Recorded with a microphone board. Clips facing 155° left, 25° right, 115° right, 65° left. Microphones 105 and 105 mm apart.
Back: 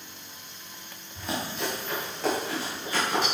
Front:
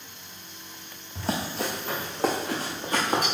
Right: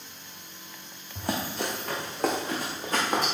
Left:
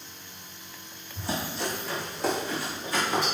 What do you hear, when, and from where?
1.1 s running footsteps: 80° right, 1.8 m; by 3.3 s 70° right, 3 m